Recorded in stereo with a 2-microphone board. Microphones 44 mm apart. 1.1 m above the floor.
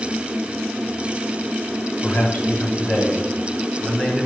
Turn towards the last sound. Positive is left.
turn(degrees=15)  # may be behind; listen again after turning